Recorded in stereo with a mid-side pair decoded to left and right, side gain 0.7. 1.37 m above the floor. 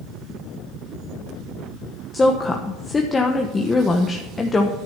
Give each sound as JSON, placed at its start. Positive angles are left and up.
{"t": 2.1, "sound": "a woman speaking", "azimuth_deg": 20, "distance_m": 1.0}